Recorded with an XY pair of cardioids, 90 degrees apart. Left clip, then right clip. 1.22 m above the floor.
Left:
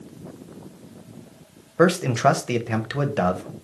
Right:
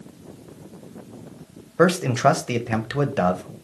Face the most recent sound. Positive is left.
turn(degrees=-5)